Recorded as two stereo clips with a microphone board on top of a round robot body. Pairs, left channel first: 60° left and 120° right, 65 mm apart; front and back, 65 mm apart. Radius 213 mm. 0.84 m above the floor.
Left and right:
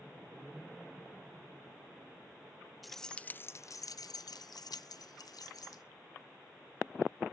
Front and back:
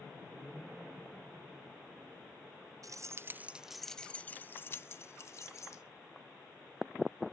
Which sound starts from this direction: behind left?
Keys jangling, at 2.8 s.